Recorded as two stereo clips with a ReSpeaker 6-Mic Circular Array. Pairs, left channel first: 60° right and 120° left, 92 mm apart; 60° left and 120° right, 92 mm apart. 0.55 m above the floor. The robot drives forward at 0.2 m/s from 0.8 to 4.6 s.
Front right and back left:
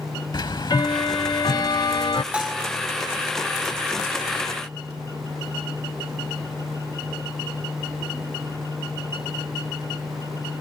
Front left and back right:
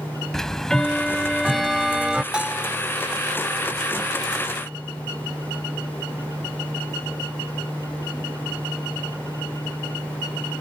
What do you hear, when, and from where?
0.3 s ticking: 25° right; by 2.2 s 40° right
2.3 s a bell: 175° left